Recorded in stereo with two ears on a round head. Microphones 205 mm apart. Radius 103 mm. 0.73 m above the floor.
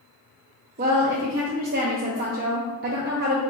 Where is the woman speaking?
40° right (ahead or behind), 0.5 m.